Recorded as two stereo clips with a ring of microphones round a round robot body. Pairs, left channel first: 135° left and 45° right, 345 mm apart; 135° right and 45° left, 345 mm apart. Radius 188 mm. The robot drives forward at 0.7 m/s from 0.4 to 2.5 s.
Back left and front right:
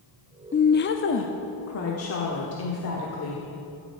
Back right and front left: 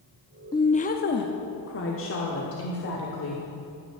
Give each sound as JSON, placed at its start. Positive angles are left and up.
{"t": 0.5, "sound": "a woman speaking", "azimuth_deg": 160, "distance_m": 0.6}